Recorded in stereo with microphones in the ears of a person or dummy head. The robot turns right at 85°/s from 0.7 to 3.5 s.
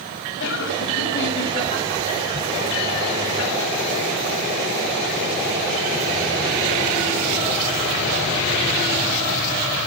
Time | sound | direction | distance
0.4 | laughter | 60° left | 6 m